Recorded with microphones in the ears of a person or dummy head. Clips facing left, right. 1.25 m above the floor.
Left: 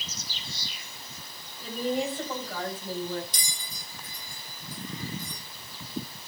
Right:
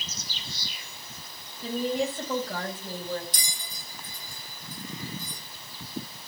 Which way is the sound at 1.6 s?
60° right (ahead or behind).